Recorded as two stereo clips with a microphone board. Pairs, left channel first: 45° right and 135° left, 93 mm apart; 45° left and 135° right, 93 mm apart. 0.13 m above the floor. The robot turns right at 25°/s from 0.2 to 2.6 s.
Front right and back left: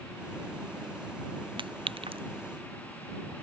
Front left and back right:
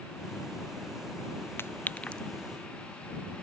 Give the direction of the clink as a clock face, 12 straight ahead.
8 o'clock.